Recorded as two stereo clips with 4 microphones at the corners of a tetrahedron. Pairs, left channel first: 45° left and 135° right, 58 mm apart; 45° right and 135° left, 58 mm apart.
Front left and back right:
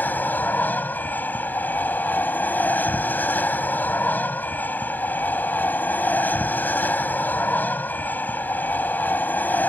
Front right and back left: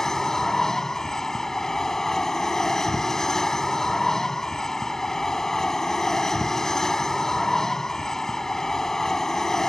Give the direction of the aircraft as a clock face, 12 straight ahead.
11 o'clock.